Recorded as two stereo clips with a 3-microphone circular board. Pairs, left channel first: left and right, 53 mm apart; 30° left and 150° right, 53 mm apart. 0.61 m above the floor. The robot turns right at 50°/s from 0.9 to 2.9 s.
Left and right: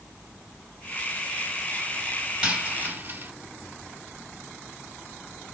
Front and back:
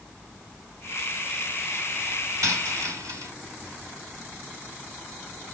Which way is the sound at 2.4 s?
165° right.